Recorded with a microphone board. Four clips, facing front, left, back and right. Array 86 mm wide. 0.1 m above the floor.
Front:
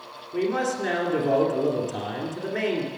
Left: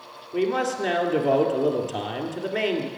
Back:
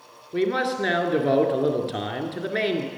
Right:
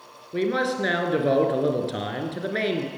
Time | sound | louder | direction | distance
0.3 | a man speaking | even, back 2 dB | 140° right | 1.8 m